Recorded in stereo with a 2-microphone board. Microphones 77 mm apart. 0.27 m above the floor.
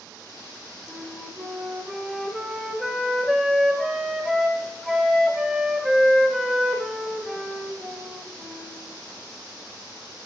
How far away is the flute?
About 0.8 m.